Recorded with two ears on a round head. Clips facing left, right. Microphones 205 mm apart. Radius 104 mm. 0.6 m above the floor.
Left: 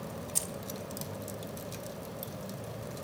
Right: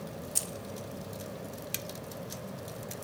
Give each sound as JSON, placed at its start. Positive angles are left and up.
{"t": 0.3, "sound": "keys jangling", "side_deg": -5, "distance_m": 1.2}